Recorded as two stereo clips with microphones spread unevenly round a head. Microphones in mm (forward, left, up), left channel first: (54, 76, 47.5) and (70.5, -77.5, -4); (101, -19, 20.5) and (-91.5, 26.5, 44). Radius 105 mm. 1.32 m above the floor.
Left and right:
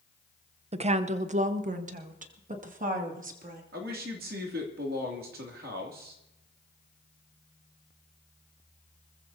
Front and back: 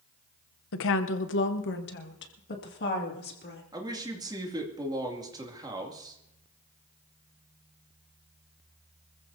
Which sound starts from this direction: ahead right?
A woman speaking, at 0.7 s.